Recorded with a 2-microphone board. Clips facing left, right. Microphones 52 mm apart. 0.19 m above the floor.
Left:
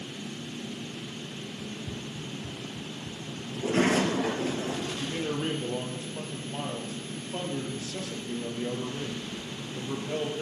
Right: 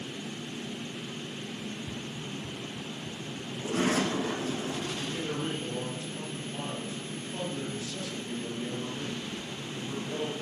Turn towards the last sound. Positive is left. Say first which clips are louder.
# left 2 dB
turn(degrees=70)  # may be behind; listen again after turning